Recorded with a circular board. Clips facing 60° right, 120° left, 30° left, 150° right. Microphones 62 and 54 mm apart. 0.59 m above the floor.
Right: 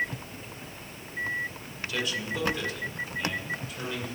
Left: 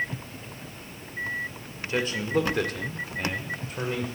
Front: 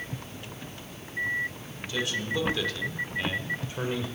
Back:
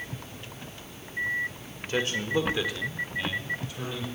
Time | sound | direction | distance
1.9 | a man speaking | 170° left | 2.0 m